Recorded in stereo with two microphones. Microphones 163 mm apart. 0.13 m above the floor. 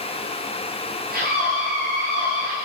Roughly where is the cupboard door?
I don't hear a cupboard door.